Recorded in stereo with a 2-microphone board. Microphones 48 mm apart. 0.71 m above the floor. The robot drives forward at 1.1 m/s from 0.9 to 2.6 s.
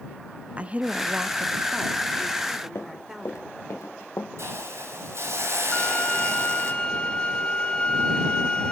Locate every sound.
0.6 s a woman speaking: 30° right (ahead or behind), 0.7 m; by 3.8 s 10° right (ahead or behind), 2 m
2.8 s running footsteps: 70° left (ahead or behind), 2.5 m; by 4.3 s 75° left (ahead or behind), 4 m
4.4 s a hiss: 65° right (ahead or behind), 4 m
5.7 s a violin: 20° left (ahead or behind), 4.5 m